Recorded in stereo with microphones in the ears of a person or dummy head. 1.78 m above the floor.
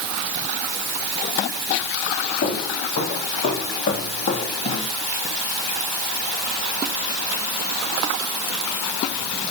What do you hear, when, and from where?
2.4 s footsteps: 45° left (ahead or behind), 6 m; by 4.9 s 25° left (ahead or behind), 3 m